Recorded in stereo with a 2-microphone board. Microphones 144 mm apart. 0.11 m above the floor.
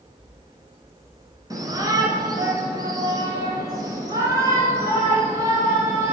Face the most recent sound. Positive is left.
turn(degrees=-20)  # may be behind; listen again after turning